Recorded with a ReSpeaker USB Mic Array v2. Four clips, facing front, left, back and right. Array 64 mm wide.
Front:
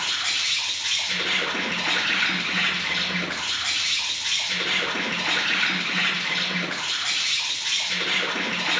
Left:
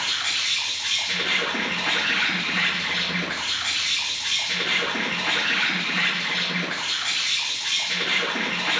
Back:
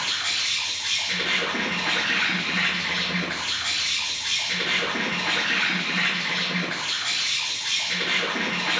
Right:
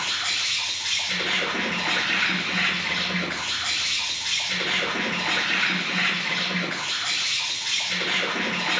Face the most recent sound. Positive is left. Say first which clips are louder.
# left 1 dB, front 1 dB
turn(degrees=105)